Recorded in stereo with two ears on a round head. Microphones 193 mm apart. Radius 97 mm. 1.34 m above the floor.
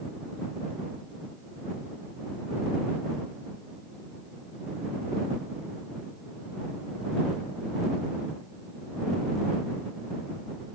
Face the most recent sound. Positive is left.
No sound to turn to.